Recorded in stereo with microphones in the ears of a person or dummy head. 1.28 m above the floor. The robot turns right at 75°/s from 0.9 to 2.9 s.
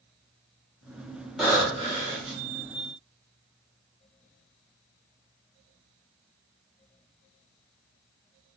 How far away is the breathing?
About 1.4 m.